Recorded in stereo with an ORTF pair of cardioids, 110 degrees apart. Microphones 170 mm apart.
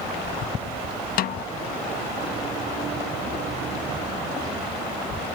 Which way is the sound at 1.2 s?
60° left.